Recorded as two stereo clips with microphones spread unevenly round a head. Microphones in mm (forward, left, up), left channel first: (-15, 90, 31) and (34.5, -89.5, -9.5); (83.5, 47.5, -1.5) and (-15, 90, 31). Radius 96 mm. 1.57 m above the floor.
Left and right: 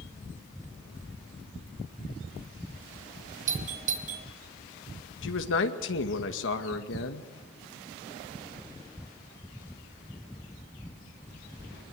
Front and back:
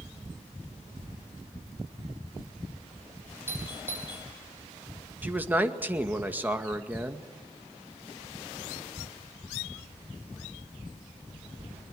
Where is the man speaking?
85° left, 2 m.